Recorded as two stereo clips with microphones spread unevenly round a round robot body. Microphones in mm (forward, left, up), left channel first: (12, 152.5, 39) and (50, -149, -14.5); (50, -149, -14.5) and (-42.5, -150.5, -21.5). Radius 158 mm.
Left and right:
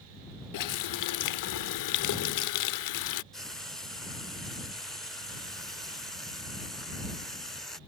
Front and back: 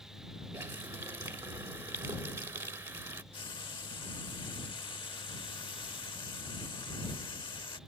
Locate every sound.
0.5 s a running tap: 120° left
3.3 s frying: straight ahead